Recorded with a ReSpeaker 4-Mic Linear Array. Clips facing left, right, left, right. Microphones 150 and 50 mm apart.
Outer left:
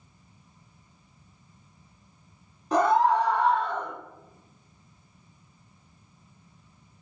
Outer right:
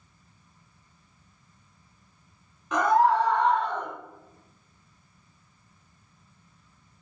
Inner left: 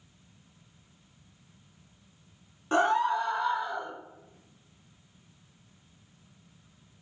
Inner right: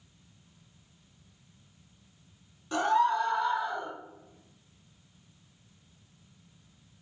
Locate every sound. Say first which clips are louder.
2.7 s a scream: even, inner left 1 dB; 35° left (ahead or behind), 0.5 m; by 3.9 s centre (ahead or behind), 1.0 m